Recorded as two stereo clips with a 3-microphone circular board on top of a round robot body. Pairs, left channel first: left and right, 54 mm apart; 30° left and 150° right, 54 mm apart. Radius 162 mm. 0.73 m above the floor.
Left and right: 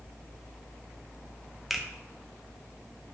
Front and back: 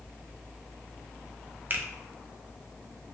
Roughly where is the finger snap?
Behind.